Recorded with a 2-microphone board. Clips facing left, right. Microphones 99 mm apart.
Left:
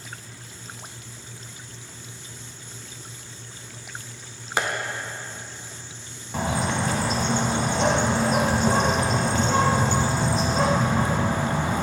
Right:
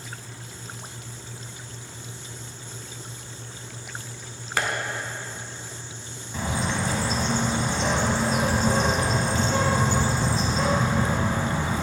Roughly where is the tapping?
Centre.